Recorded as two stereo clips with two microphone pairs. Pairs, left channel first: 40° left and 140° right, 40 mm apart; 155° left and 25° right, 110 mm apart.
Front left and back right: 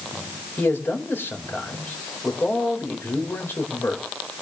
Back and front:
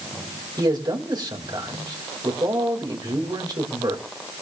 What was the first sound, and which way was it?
A man speaking, 25° left.